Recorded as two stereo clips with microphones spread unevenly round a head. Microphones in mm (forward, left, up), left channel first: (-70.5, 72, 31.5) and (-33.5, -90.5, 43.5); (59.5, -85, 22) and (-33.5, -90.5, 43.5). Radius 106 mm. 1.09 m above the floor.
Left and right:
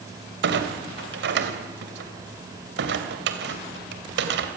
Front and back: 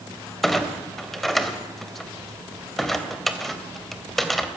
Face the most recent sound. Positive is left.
turn(degrees=-90)